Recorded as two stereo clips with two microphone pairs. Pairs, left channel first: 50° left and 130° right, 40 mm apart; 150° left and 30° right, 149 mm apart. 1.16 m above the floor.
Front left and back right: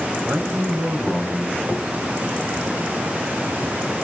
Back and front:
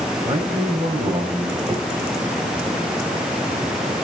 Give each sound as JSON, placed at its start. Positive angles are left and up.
{"t": 0.2, "sound": "a man speaking", "azimuth_deg": -95, "distance_m": 7.0}
{"t": 1.7, "sound": "knocking", "azimuth_deg": -85, "distance_m": 4.5}